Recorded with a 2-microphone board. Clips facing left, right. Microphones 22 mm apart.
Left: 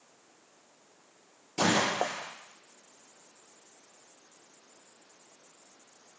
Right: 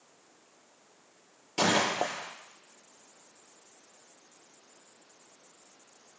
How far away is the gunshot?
About 3.5 m.